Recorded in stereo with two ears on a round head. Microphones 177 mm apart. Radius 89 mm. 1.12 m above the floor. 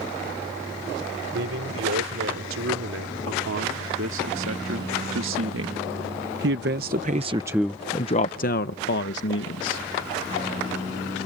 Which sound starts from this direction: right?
A man speaking, at 1.3 s.